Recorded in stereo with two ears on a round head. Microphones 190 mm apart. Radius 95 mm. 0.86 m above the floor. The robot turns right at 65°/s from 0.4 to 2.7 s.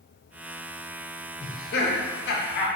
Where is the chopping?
I don't hear chopping.